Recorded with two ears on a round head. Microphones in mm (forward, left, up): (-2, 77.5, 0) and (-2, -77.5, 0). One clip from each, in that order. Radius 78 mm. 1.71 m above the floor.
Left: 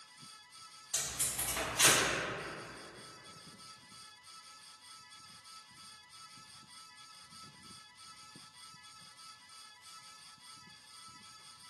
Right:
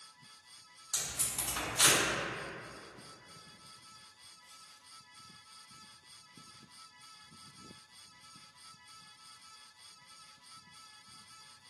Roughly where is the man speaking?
I don't hear a man speaking.